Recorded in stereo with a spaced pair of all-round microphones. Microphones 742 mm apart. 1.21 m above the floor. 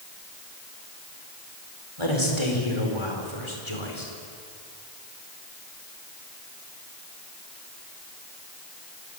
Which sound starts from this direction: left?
A man speaking, at 2.0 s.